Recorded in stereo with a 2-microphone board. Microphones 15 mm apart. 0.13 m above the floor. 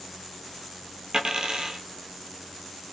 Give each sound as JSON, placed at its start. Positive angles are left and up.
{"t": 1.1, "sound": "a dropped coin", "side_deg": -65, "distance_m": 1.0}